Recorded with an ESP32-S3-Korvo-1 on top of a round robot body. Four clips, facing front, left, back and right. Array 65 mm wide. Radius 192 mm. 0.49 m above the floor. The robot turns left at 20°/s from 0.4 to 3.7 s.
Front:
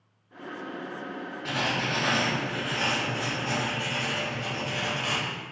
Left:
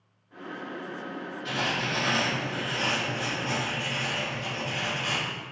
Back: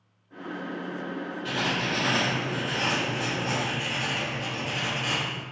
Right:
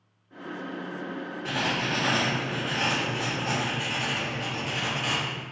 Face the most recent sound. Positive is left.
turn(degrees=-90)